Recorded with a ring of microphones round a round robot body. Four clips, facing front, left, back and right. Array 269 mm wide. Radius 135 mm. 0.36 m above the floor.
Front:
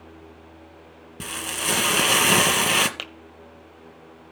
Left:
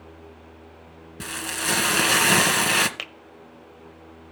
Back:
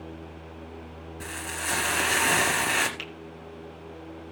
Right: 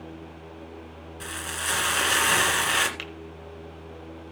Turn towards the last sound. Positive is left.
turn(degrees=35)